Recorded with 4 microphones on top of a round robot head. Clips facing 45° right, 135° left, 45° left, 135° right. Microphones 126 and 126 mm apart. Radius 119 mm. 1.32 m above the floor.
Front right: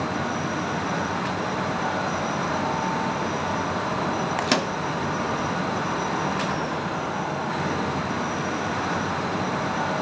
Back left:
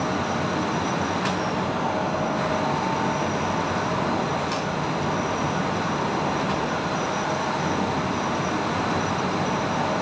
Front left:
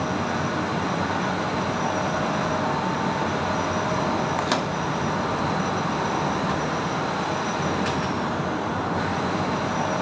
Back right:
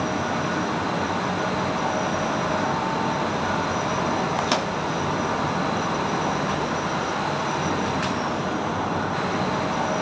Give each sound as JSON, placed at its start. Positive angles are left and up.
{"t": 4.4, "sound": "a microwave", "azimuth_deg": -50, "distance_m": 0.9}